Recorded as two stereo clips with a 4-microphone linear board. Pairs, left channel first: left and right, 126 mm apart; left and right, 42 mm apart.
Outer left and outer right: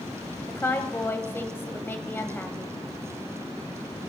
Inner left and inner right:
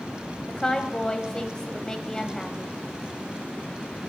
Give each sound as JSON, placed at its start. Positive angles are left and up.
{"t": 0.5, "sound": "a woman speaking", "side_deg": 20, "distance_m": 1.2}